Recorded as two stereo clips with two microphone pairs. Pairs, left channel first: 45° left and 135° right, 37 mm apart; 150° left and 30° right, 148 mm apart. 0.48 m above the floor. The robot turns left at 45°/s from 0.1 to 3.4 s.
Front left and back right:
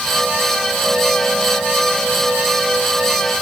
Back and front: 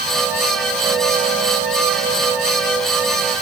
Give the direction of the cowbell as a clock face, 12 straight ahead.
I don't hear a cowbell.